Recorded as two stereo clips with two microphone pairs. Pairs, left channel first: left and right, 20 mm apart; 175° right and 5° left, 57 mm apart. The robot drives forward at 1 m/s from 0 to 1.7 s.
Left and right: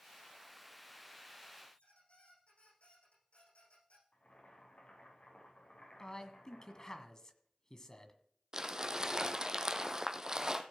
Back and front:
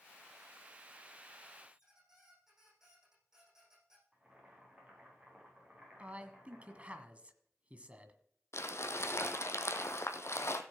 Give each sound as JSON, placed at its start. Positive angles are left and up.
{"t": 1.7, "sound": "a squeak", "azimuth_deg": 85, "distance_m": 8.0}
{"t": 4.1, "sound": "boiling", "azimuth_deg": 75, "distance_m": 5.5}
{"t": 6.0, "sound": "a man speaking", "azimuth_deg": 55, "distance_m": 1.6}
{"t": 8.5, "sound": "crumpling", "azimuth_deg": -145, "distance_m": 1.2}